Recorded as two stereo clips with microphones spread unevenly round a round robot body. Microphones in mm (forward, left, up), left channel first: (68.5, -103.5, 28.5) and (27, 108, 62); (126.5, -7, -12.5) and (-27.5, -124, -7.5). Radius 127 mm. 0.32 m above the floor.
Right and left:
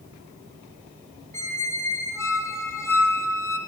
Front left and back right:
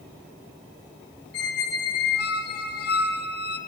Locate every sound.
1.3 s a squeak: straight ahead, 1.3 m